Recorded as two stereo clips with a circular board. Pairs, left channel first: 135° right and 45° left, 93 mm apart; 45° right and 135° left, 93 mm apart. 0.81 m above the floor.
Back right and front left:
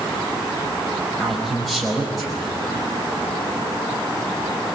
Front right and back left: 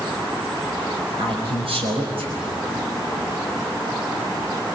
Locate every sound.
1.2 s a man speaking: 135° left, 5 m